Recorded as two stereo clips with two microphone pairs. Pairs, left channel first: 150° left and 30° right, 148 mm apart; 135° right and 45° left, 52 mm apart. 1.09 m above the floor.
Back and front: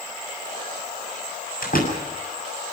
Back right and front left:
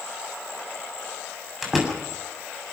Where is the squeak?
I don't hear a squeak.